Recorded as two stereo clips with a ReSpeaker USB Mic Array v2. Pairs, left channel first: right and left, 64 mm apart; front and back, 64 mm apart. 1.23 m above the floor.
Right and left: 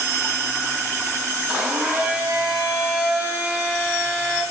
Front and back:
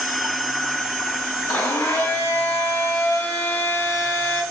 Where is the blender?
30° left, 1.6 m.